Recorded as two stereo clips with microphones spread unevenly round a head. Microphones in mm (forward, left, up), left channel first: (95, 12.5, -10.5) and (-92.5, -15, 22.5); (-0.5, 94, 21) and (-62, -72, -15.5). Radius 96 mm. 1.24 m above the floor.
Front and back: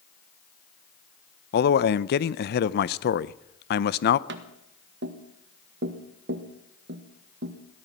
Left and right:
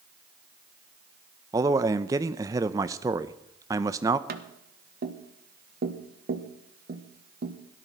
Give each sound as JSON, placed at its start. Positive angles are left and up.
{"t": 1.5, "sound": "a man speaking", "azimuth_deg": -35, "distance_m": 0.5}
{"t": 4.3, "sound": "tapping", "azimuth_deg": -135, "distance_m": 1.3}